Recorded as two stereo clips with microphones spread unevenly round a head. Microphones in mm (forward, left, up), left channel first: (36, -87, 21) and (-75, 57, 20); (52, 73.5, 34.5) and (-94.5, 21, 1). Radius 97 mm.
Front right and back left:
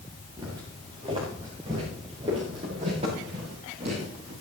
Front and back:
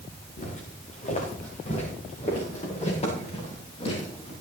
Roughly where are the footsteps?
Ahead left.